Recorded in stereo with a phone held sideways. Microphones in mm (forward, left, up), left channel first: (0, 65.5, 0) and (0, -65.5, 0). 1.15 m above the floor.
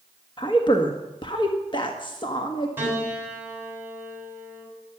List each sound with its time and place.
0.4 s a woman speaking: 40° left (ahead or behind), 1.6 m
2.8 s a piano: 15° right (ahead or behind), 6 m